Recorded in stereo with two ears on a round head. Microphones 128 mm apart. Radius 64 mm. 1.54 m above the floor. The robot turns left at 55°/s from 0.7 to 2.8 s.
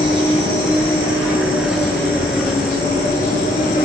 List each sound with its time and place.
0.0 s an insect: 130° right, 1.5 m; by 3.9 s 115° left, 1.5 m